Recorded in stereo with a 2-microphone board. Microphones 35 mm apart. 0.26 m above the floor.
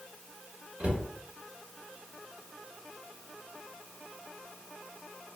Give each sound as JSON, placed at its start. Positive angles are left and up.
{"t": 0.8, "sound": "a cupboard door", "side_deg": -35, "distance_m": 1.7}